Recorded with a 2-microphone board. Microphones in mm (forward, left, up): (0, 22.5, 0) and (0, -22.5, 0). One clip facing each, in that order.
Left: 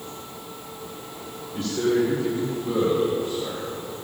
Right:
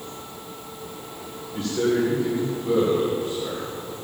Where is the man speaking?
15° right (ahead or behind), 2 m.